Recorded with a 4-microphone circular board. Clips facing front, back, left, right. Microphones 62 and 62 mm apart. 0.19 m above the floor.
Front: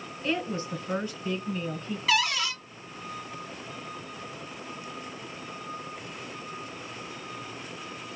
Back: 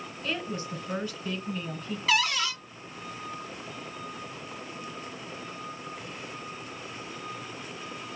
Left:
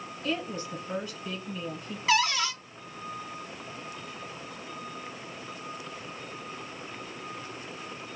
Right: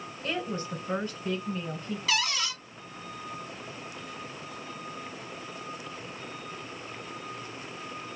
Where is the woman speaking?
55° right, 2.5 m.